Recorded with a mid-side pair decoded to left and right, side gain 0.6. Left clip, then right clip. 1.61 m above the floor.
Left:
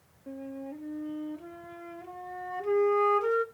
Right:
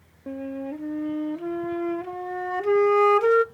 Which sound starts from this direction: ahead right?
A flute, at 0.3 s.